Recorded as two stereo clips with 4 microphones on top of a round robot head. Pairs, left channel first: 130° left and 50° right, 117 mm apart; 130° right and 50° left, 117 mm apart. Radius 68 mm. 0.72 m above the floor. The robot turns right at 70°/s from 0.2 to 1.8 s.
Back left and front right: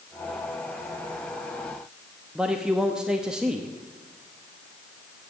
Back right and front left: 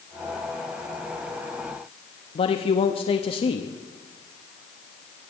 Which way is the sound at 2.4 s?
130° right.